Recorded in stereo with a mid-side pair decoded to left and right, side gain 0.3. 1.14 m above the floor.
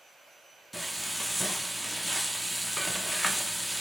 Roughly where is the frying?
Ahead.